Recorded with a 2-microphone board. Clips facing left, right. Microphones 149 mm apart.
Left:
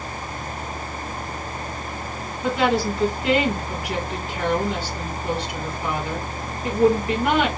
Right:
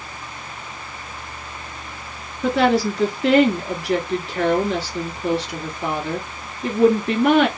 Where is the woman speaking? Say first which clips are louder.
Right 3 dB; 80° right, 2.5 m.